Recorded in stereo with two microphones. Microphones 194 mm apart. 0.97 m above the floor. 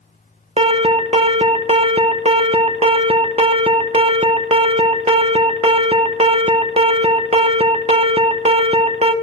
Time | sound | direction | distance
0.6 | an alarm | 30° right (ahead or behind) | 0.5 m